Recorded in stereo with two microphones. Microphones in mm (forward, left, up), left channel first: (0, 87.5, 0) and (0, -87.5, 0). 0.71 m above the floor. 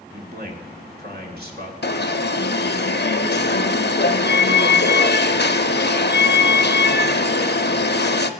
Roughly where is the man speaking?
Right.